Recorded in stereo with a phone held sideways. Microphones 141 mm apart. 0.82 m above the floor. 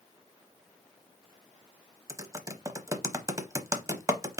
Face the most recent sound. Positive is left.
turn(degrees=-25)  # may be behind; listen again after turning